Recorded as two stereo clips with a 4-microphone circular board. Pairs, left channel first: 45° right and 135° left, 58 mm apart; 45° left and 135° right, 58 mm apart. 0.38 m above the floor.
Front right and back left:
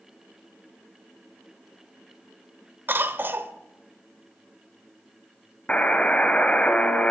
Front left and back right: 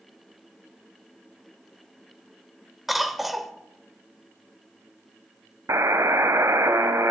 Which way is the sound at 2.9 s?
135° left.